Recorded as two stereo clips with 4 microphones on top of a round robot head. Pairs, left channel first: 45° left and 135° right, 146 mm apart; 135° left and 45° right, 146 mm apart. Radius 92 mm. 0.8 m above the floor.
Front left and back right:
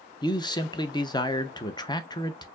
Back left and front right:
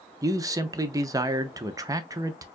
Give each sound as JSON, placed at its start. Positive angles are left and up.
{"t": 0.2, "sound": "a man speaking", "azimuth_deg": 5, "distance_m": 0.7}